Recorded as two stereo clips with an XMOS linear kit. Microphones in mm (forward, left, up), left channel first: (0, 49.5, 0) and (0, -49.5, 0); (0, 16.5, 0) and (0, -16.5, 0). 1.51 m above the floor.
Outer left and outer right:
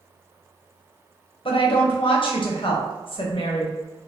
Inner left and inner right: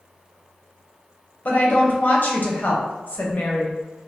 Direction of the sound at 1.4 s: 60° left (ahead or behind).